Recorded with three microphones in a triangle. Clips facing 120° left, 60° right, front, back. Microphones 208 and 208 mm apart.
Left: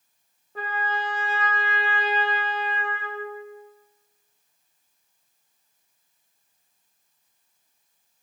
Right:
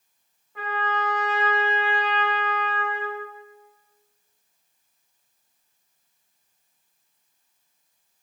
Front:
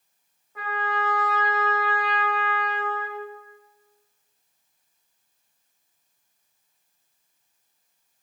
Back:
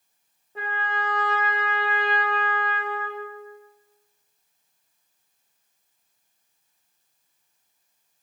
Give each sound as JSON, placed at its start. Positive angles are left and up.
{"t": 0.6, "sound": "a trumpet", "azimuth_deg": 140, "distance_m": 0.7}